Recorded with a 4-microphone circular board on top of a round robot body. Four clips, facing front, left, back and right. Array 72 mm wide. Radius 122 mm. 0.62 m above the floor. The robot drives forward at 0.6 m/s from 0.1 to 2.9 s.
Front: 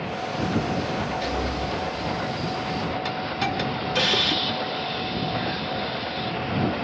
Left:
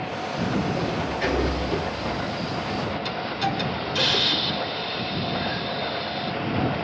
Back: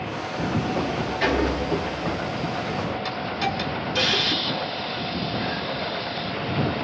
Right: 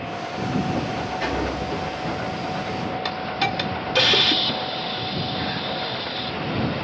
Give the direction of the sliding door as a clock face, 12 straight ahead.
5 o'clock.